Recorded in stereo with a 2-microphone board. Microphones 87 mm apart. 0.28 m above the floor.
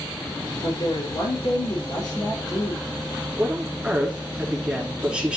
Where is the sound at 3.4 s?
10° right (ahead or behind), 4 m.